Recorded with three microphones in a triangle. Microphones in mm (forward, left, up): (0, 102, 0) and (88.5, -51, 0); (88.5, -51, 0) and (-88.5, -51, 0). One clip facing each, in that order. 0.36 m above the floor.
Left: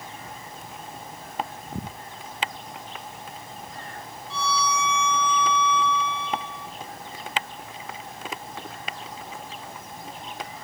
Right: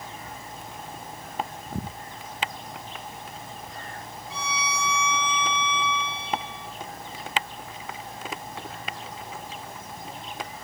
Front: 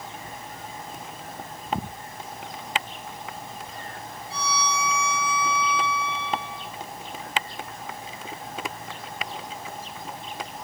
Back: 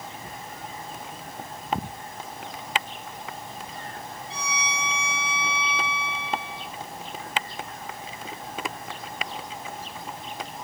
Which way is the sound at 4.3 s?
10° left.